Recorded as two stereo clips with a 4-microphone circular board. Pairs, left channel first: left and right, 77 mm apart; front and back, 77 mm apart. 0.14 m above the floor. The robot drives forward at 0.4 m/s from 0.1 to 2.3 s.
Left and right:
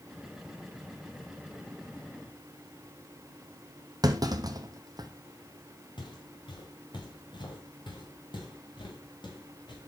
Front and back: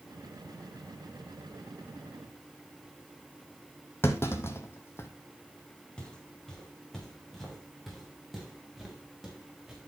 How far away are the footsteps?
About 4 m.